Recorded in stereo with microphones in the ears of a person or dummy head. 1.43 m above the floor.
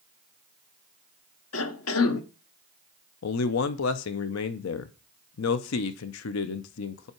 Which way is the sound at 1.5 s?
75° left (ahead or behind).